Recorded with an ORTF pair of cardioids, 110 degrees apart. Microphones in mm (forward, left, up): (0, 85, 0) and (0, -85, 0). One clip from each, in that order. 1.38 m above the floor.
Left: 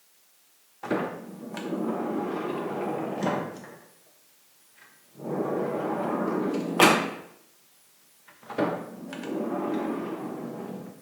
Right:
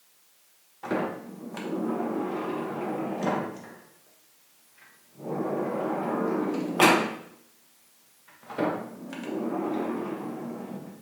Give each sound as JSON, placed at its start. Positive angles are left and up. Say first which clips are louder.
{"t": 0.8, "sound": "a sliding door", "louder": "even", "azimuth_deg": 10, "distance_m": 0.7}